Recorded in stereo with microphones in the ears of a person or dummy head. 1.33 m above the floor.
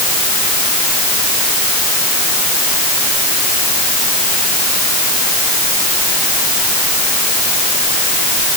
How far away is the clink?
No clink in this recording.